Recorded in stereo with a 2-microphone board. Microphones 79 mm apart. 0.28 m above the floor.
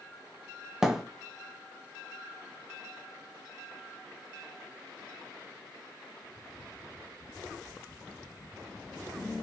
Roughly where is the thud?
Centre.